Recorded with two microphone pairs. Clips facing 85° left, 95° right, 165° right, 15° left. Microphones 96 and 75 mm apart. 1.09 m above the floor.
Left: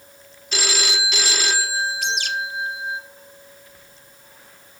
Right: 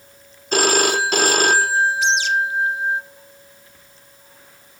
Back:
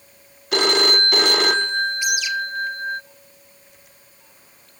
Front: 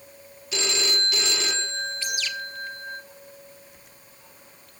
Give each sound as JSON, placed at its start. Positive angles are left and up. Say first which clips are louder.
{"t": 0.5, "sound": "a phone ringing", "louder": "right 9 dB, back 10 dB", "azimuth_deg": -130, "distance_m": 0.6}
{"t": 2.0, "sound": "a bird", "louder": "right 7 dB, back 8 dB", "azimuth_deg": 120, "distance_m": 1.5}